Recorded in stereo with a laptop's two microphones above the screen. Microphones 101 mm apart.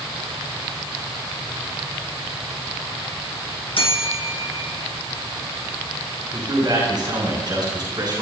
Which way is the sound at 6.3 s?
50° right (ahead or behind).